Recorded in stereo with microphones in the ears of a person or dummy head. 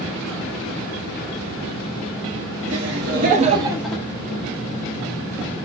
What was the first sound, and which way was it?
Laughter, 60° right (ahead or behind).